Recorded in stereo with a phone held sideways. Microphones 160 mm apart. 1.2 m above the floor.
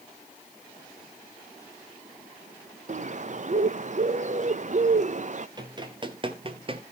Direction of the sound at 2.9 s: 50° right (ahead or behind).